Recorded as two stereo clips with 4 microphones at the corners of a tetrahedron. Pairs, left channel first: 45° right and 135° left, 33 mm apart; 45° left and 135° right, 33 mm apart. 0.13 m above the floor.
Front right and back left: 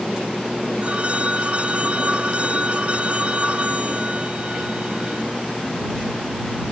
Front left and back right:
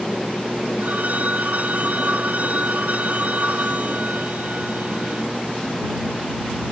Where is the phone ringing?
170° right.